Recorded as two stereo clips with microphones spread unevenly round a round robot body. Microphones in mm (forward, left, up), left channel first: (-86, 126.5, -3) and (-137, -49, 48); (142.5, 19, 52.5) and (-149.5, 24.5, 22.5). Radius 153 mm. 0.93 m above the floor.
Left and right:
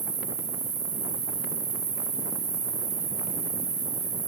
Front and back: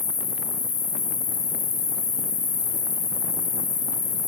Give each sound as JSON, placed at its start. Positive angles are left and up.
{"t": 0.0, "sound": "an insect", "azimuth_deg": -60, "distance_m": 2.0}